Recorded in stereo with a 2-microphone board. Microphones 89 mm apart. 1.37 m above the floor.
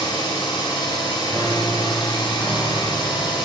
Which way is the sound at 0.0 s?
70° left (ahead or behind).